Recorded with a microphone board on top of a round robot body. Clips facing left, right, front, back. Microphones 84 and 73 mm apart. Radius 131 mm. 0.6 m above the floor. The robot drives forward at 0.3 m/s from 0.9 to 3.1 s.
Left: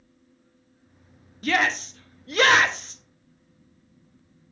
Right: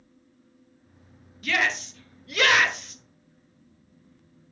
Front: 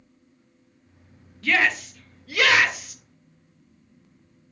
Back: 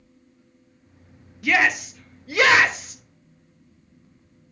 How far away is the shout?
About 1.2 m.